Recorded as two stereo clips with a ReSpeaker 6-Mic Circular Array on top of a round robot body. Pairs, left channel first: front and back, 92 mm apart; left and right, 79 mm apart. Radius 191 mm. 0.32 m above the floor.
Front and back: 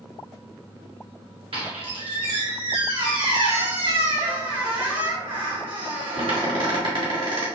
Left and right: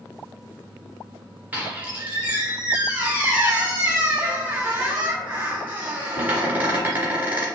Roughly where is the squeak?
Behind.